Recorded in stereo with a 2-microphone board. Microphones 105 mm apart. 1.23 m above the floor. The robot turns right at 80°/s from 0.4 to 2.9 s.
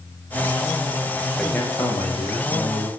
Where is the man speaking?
5° left, 0.6 m; by 2.9 s 125° left, 0.6 m.